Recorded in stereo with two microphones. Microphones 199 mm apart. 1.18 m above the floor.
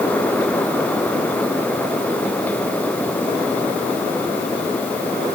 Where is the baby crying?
I don't hear a baby crying.